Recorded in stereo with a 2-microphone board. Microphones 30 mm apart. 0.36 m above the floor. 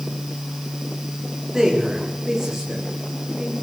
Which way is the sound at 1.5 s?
20° right (ahead or behind).